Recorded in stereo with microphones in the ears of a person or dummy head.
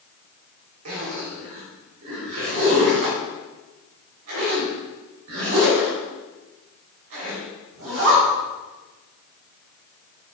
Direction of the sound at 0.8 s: 75° right (ahead or behind).